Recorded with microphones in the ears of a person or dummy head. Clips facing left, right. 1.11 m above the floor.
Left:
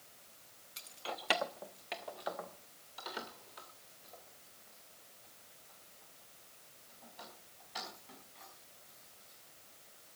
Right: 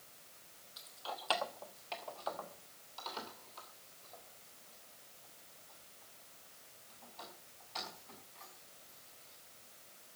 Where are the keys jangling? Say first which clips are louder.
Left 2 dB; 40° left (ahead or behind), 0.7 m; by 9.4 s 15° left (ahead or behind), 7 m.